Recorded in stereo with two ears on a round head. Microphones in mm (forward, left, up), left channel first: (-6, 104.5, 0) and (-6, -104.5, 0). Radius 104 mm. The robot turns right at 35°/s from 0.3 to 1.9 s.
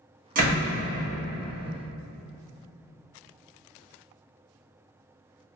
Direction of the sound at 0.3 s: 40° right (ahead or behind).